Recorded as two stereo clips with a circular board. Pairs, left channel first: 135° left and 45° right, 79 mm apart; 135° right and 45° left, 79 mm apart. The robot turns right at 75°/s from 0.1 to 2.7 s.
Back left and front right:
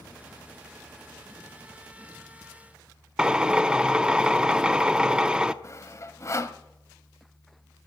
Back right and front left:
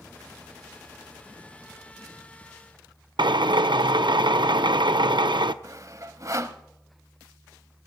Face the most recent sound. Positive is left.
turn(degrees=85)